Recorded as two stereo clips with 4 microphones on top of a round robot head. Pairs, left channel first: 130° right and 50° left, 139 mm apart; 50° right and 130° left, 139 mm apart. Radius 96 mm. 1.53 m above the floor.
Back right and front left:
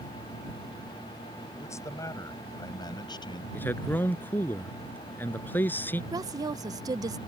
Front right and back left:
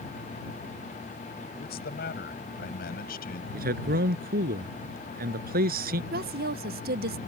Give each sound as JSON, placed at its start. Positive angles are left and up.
{"t": 1.6, "sound": "a man speaking", "azimuth_deg": -60}
{"t": 3.5, "sound": "a man speaking", "azimuth_deg": 150}
{"t": 6.1, "sound": "a woman speaking", "azimuth_deg": 115}